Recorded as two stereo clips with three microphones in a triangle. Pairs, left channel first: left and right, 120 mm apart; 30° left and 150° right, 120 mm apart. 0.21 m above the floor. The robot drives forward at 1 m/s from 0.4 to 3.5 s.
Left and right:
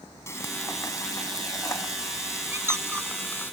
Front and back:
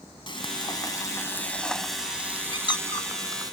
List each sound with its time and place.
0.3 s frying: 35° left; by 3.5 s 160° left
2.5 s a squeak: 20° right; by 3.1 s 25° right